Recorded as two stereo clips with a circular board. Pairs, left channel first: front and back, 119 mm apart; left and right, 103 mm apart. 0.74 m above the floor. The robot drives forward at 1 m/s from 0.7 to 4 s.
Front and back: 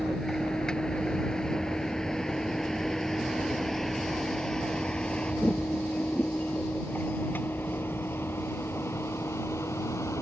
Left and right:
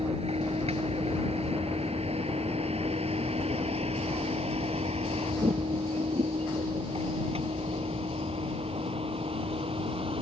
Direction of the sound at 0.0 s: 85° right.